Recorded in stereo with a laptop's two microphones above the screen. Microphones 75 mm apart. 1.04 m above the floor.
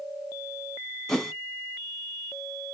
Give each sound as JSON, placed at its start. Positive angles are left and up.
{"t": 1.1, "sound": "a whoosh", "side_deg": 10, "distance_m": 1.2}